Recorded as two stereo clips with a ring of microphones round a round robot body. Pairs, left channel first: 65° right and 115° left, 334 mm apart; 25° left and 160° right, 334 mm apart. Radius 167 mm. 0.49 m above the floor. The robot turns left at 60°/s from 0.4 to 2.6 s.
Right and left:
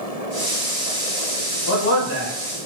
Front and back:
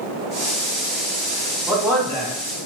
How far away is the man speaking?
About 1.3 m.